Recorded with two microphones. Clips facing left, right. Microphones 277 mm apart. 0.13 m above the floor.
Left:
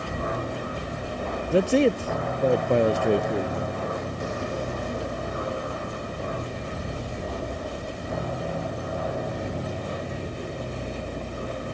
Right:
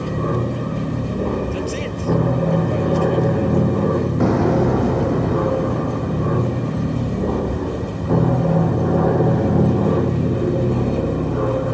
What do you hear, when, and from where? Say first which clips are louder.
0.0 s an aircraft: right 9 dB; 50° right (ahead or behind); by 11.8 s 65° right (ahead or behind)
1.5 s a man speaking: left 5 dB; 60° left (ahead or behind)
4.2 s an explosion: right 14 dB; 80° right